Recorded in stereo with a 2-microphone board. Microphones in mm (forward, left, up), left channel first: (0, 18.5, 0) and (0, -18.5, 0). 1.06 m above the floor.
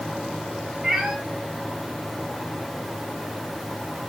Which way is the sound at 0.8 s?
10° right (ahead or behind).